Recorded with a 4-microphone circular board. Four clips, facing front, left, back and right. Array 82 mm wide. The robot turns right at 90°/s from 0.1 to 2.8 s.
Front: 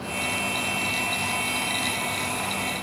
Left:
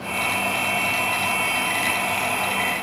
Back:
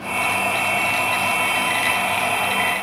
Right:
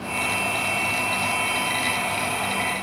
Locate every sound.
Only background noise.